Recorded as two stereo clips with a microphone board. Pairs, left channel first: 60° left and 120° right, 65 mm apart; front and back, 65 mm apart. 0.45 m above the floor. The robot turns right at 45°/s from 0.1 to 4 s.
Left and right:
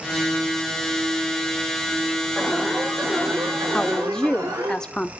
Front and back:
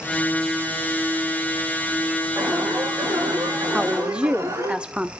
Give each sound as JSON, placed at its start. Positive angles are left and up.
{"t": 2.4, "sound": "an alarm", "azimuth_deg": 145, "distance_m": 6.5}
{"t": 3.7, "sound": "a woman speaking", "azimuth_deg": 110, "distance_m": 0.7}